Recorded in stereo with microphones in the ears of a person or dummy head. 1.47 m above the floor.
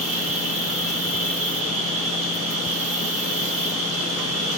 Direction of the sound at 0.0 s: 40° right (ahead or behind).